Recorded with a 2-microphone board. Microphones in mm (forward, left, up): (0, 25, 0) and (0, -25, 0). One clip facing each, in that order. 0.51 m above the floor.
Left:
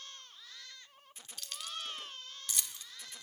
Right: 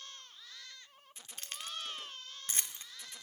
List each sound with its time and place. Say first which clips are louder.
1.4 s keys jangling: even; 40° right (ahead or behind), 0.7 m